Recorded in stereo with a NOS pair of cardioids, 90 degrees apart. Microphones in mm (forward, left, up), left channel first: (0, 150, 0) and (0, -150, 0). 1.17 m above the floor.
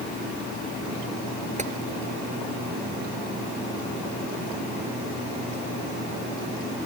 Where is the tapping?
25° right.